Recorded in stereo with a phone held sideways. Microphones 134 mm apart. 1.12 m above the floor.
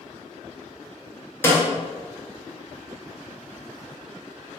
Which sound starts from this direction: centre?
A snare drum, at 1.4 s.